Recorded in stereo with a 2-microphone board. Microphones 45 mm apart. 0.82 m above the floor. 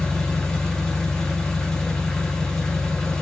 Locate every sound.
0.0 s an engine running: 15° left (ahead or behind), 0.8 m